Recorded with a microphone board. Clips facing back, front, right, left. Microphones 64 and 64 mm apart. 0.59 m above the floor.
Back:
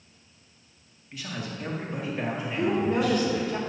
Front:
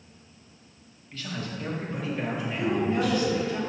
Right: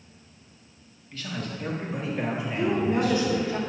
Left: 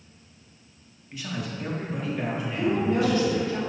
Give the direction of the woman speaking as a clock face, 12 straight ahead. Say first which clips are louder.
Back 1 dB, left 1 dB; 5 o'clock.